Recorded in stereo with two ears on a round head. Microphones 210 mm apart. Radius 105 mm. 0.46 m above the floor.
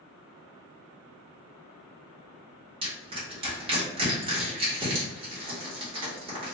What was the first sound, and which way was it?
Crushing, 25° right (ahead or behind).